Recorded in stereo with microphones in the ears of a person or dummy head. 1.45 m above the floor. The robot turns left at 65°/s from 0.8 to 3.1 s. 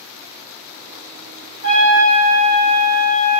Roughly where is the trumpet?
Ahead right.